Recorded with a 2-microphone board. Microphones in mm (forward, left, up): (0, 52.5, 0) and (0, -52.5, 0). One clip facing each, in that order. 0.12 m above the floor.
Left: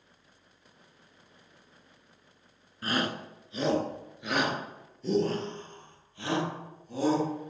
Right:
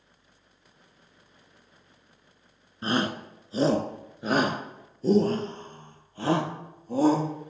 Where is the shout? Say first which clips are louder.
Right 4 dB; 25° right (ahead or behind), 1.2 m; by 7.3 s 40° right (ahead or behind), 3 m.